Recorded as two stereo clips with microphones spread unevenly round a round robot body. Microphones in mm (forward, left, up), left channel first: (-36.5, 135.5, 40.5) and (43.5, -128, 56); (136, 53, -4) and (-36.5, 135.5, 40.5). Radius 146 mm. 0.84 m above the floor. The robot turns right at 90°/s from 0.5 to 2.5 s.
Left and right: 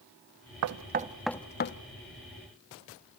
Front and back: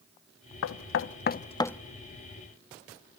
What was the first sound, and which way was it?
Knocking, 40° right.